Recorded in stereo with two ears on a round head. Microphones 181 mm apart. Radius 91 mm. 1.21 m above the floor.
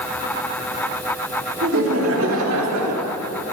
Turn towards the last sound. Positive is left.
turn(degrees=-80)